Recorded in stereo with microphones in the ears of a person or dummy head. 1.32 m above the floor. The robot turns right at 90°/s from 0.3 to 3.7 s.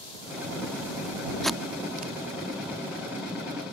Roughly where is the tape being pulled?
Centre.